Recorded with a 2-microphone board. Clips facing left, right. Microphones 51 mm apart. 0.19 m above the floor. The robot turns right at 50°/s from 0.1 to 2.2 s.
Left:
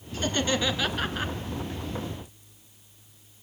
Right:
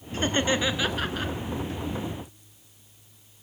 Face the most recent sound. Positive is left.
turn(degrees=60)